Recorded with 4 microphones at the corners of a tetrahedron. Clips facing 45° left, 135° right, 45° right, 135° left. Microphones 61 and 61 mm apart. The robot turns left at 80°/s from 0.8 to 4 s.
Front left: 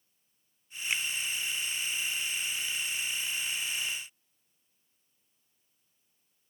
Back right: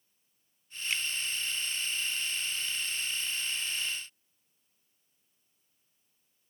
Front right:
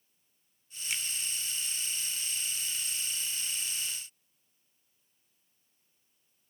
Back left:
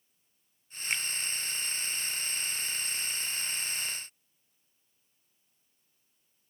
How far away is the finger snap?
About 1.7 m.